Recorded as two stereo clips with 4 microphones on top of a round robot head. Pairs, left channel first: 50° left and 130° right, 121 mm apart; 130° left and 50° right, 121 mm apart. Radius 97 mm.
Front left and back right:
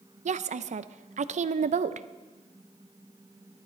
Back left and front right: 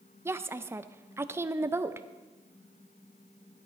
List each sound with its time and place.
0.2 s a woman speaking: 120° right, 0.5 m